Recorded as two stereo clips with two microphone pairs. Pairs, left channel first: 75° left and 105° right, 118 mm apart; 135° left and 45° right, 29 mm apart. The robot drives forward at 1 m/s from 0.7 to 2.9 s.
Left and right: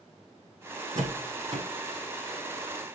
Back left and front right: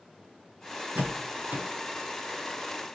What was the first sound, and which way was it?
A door slam, 50° right.